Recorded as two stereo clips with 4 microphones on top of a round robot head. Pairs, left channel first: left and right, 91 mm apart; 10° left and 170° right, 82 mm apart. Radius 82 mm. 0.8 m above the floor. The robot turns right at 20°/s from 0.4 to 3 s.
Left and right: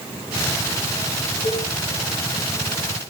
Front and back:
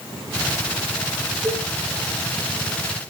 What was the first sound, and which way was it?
A cowbell, 110° left.